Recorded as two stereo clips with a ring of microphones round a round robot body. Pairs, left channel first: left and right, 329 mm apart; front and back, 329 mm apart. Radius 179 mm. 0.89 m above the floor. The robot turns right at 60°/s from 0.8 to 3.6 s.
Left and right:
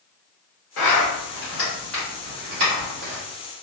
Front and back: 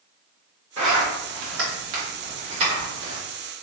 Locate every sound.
0.8 s a zipper: 110° left, 1.4 m; by 3.2 s 105° right, 1.4 m